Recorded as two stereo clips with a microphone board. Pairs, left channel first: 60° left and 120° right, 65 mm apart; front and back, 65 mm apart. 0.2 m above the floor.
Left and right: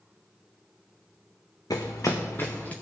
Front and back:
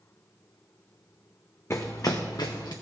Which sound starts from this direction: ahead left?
Running footsteps, at 1.7 s.